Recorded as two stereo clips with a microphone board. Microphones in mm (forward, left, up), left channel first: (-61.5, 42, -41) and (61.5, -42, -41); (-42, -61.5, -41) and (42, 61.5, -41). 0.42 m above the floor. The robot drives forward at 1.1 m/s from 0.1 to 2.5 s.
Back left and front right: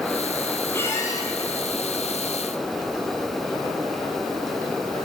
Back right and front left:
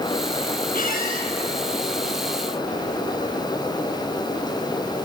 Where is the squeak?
140° right, 1.5 m; by 1.3 s 150° right, 2 m.